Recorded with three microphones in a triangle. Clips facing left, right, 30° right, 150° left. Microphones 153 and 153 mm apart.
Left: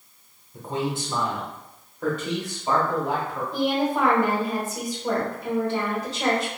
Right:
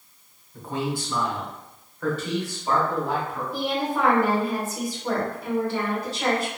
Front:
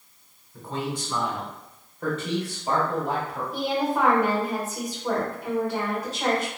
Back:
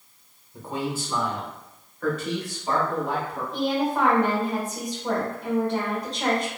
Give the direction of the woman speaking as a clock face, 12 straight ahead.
10 o'clock.